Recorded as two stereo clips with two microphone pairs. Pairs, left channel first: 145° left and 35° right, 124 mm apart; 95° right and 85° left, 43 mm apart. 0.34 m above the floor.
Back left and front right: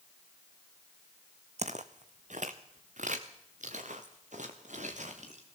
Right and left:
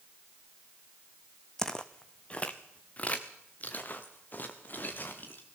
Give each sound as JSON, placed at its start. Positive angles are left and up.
{"t": 1.6, "sound": "footsteps", "azimuth_deg": -15, "distance_m": 1.0}